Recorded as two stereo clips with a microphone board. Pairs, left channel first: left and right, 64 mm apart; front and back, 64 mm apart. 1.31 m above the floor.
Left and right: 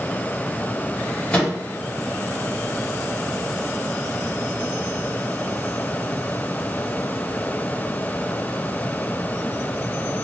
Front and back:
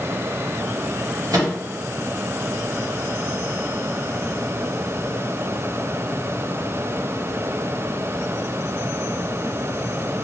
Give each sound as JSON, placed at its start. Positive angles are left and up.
{"t": 1.3, "sound": "a microwave", "azimuth_deg": 160, "distance_m": 1.7}